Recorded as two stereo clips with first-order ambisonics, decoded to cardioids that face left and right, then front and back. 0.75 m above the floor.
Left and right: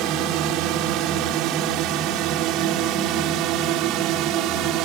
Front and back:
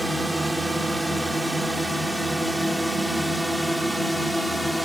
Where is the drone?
95° right; by 4.9 s 90° right.